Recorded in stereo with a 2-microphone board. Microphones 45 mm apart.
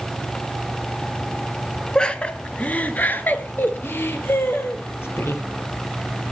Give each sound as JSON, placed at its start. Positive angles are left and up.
{"t": 1.9, "sound": "laughter", "side_deg": 20, "distance_m": 1.8}